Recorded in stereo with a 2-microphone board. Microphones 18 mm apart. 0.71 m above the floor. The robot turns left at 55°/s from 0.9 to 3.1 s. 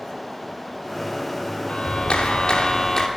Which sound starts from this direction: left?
A clap, at 1.7 s.